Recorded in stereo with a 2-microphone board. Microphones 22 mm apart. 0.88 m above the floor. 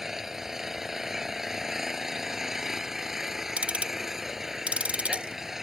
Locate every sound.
0.0 s an engine running: 10° right (ahead or behind)
3.6 s ticking: 80° right